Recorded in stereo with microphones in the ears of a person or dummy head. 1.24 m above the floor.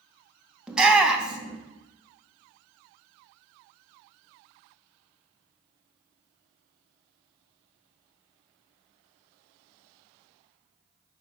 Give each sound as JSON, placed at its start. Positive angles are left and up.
{"t": 0.7, "sound": "a shout", "side_deg": 0, "distance_m": 0.8}